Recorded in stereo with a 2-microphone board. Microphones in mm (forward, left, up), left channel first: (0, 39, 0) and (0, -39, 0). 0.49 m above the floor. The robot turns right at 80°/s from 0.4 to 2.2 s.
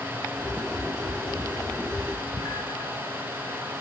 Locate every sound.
1.8 s a cat meowing: 20° left (ahead or behind), 1.0 m; by 2.9 s 55° left (ahead or behind), 1.0 m